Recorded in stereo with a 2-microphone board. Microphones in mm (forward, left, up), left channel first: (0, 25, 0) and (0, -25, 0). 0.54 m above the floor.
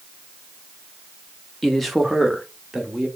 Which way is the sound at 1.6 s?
5° left (ahead or behind).